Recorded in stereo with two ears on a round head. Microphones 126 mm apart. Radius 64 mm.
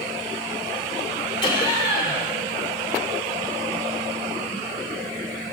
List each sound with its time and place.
1.4 s laughter: 35° left (ahead or behind), 2 m